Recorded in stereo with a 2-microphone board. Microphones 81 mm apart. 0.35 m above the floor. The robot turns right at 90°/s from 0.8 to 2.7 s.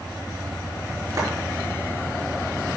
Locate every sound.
1.2 s a clap: 50° right (ahead or behind), 4.5 m; by 1.3 s 60° right (ahead or behind), 4.5 m